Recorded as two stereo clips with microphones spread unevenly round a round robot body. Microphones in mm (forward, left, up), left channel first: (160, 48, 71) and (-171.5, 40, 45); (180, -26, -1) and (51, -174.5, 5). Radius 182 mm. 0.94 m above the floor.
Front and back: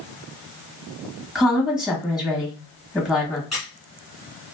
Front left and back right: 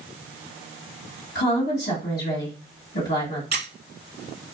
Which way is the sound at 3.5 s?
85° right.